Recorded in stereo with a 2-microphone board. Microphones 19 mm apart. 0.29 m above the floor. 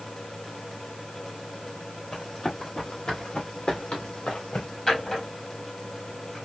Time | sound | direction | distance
2.1 | running footsteps | 25° left (ahead or behind) | 3 m
4.9 | a drawer | 15° left (ahead or behind) | 2.5 m